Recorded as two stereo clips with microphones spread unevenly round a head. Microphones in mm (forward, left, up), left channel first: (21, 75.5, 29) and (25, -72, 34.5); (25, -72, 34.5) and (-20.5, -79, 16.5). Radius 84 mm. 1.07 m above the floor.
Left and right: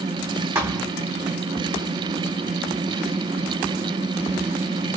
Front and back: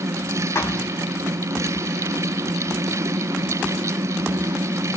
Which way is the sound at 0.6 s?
15° right.